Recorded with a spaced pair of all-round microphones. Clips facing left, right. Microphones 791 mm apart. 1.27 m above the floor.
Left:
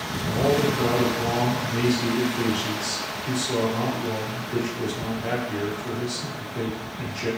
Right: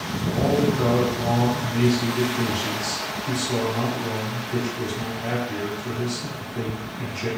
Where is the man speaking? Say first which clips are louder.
Right 1 dB; 10° left (ahead or behind), 1.6 m.